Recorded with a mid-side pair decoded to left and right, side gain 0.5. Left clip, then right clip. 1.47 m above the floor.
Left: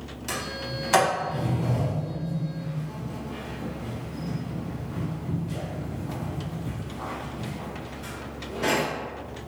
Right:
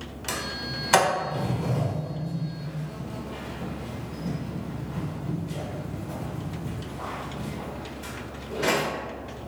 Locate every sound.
0.3 s a sliding door: 20° right, 1.5 m